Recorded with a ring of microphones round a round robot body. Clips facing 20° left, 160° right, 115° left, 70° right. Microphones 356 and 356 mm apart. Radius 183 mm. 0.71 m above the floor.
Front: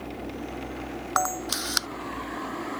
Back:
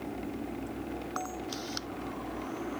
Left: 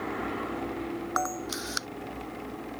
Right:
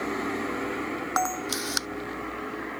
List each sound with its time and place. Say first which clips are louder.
1.2 s a camera shutter: front 5 dB, right 3 dB; 5° left